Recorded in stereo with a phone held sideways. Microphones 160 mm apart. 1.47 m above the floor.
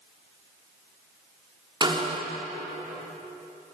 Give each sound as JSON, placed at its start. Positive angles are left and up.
{"t": 1.8, "sound": "a snare drum", "side_deg": -30, "distance_m": 4.0}